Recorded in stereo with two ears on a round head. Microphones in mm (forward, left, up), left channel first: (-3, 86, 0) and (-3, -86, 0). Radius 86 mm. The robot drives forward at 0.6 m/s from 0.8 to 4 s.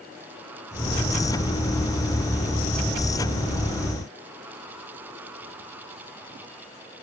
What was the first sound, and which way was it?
Only background noise.